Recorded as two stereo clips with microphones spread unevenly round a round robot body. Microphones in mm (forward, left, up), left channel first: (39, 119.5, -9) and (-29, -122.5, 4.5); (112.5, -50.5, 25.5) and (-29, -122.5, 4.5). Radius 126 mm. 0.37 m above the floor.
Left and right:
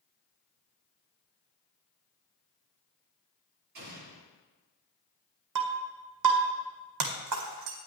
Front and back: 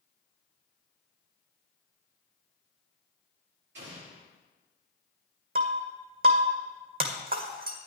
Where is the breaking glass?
125° right, 1.9 m.